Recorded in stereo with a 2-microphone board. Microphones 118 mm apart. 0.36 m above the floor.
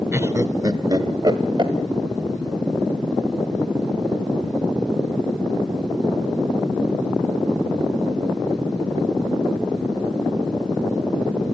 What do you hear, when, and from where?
0.1 s laughter: 20° right (ahead or behind), 0.8 m; by 1.7 s 40° right (ahead or behind), 1.6 m